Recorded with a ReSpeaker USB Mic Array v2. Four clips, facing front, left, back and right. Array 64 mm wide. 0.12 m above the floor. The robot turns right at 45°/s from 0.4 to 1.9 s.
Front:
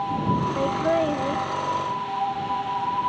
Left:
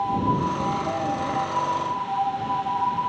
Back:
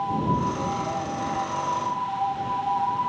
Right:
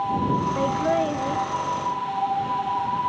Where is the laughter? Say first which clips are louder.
Right 4 dB, front 6 dB; 50° right; by 1.4 s 15° right.